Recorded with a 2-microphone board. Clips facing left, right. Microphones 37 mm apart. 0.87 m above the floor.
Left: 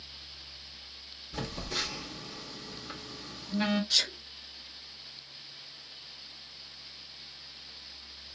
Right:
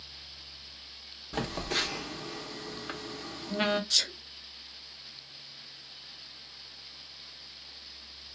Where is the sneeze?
10° left (ahead or behind), 0.8 m.